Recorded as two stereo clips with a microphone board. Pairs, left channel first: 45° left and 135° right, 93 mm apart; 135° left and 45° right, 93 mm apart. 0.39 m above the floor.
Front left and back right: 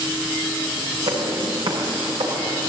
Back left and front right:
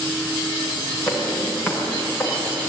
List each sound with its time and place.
1.1 s footsteps: 150° right, 7 m; by 2.7 s 140° right, 8.5 m